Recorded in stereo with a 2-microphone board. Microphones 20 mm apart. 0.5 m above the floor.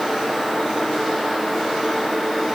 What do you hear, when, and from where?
Only background noise.